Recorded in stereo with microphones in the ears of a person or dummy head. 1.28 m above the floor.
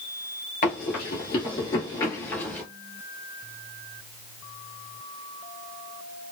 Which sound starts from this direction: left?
Running footsteps, at 0.6 s.